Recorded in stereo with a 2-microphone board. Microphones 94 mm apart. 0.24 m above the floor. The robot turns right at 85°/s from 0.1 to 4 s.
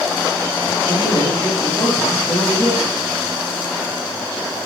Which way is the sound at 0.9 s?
85° right.